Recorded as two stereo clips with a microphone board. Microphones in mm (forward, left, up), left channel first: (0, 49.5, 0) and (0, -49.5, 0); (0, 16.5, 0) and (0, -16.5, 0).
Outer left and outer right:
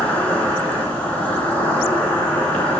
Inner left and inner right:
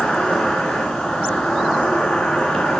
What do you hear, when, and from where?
0.0 s an insect: 15° left (ahead or behind), 2 m